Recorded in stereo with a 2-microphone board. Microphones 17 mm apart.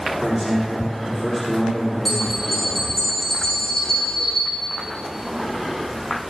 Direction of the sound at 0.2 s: 10° left (ahead or behind).